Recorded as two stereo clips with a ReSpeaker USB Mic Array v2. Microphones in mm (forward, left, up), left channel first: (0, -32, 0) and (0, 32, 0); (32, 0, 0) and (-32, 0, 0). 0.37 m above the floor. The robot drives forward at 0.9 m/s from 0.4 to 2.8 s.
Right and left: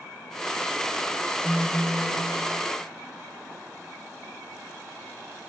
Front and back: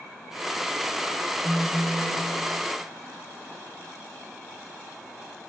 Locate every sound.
1.4 s a phone buzzing: 20° left, 9 m